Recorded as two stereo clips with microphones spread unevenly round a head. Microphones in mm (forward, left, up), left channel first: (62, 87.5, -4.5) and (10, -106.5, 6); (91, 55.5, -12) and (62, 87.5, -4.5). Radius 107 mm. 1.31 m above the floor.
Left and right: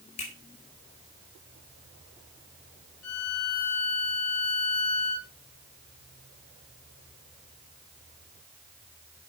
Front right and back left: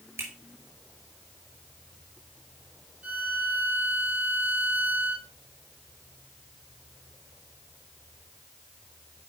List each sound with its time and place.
0.2 s a finger snap: 140° left, 5 m
3.0 s a violin: 80° left, 3.5 m